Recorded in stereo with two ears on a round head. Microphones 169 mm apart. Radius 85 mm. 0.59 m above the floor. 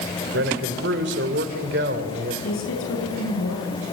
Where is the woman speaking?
75° left (ahead or behind), 8 m.